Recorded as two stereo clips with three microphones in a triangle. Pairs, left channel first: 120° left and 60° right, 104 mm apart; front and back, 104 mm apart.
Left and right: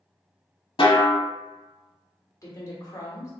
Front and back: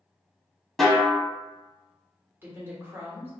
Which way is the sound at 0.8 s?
90° left.